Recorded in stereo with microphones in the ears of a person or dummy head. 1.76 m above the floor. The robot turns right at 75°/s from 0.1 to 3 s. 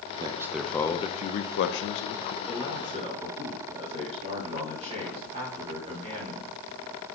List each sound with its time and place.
0.2 s a man speaking: 30° right, 0.6 m; by 2.4 s 130° left, 0.6 m
2.5 s a man speaking: 175° left, 5 m; by 6.6 s 145° right, 5 m